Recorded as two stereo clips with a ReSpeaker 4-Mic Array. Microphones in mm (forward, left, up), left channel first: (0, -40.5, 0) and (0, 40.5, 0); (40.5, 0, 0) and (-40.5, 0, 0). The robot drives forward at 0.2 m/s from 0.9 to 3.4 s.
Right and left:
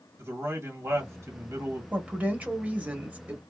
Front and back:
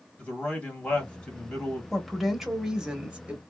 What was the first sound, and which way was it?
A man speaking, 65° left.